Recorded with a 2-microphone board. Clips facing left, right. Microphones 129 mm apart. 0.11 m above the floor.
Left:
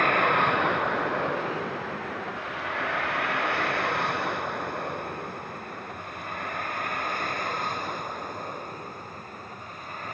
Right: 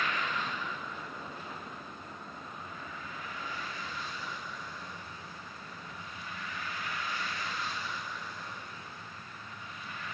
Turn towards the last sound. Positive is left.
turn(degrees=50)  # may be behind; listen again after turning